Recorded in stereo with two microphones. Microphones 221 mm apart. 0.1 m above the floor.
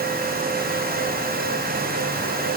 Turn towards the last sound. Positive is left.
No sound to turn to.